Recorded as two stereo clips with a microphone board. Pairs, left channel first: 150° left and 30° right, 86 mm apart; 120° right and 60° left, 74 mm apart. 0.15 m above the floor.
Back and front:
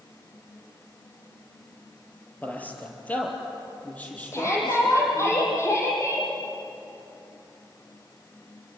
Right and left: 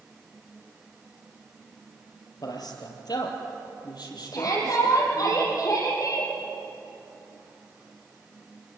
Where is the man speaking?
140° right, 3.5 m; by 5.3 s 135° right, 6 m.